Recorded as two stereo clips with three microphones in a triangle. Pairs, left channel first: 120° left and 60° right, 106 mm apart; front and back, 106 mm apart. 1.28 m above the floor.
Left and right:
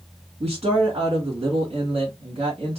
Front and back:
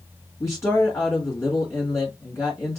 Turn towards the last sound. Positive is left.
turn(degrees=-65)